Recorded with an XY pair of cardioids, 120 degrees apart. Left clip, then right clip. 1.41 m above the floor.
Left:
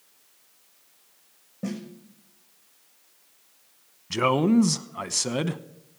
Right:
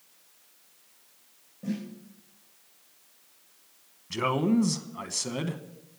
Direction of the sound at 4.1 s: 35° left.